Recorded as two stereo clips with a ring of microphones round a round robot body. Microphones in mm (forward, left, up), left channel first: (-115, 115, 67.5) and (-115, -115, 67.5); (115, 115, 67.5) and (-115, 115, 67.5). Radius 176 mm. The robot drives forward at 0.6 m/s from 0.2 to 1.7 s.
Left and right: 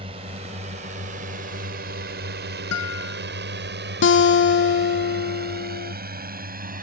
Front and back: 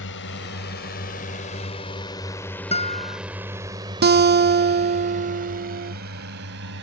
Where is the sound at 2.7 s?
65° left.